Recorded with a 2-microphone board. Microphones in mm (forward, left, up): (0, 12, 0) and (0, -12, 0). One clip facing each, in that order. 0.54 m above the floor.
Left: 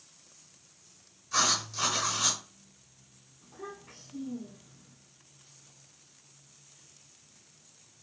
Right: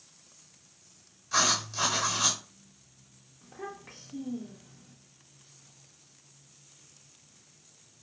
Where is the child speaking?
40° right (ahead or behind), 0.6 m.